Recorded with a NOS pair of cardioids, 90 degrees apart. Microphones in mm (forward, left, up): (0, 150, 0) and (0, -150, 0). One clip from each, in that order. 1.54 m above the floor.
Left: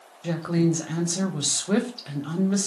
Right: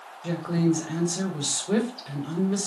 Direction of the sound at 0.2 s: 20° left.